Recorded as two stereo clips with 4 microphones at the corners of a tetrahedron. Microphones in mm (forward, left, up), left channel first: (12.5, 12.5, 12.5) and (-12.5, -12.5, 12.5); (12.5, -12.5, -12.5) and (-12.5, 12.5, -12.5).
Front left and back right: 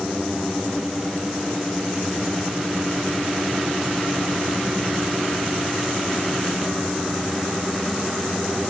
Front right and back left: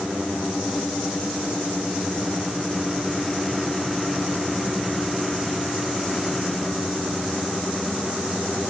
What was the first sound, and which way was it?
Only background noise.